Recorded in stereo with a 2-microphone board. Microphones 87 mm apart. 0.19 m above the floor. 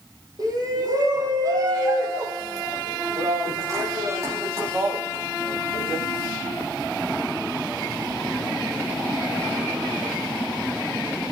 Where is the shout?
45° right (ahead or behind), 7.5 m; by 6.0 s 30° right (ahead or behind), 10 m.